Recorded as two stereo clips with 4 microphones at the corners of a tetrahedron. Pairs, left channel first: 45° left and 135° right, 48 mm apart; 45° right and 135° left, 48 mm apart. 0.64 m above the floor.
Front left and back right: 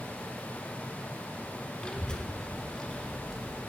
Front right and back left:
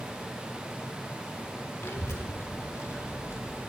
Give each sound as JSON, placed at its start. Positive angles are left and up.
{"t": 1.8, "sound": "a child speaking", "azimuth_deg": -25, "distance_m": 1.3}